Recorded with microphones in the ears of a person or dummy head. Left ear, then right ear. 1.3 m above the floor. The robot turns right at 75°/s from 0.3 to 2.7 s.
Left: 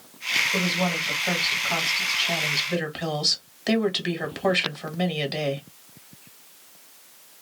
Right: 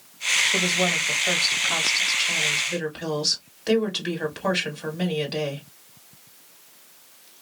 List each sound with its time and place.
0.5 s a woman speaking: 150° right, 1.8 m; by 5.7 s 15° left, 1.8 m